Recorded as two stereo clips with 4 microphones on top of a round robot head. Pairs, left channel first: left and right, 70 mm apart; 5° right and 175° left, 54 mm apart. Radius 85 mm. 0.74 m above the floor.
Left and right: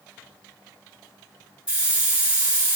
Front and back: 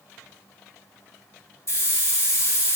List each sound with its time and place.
1.7 s a hiss: 20° right, 2 m